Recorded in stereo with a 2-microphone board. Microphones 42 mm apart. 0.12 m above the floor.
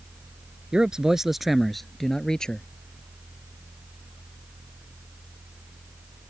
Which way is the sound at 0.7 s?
20° right (ahead or behind).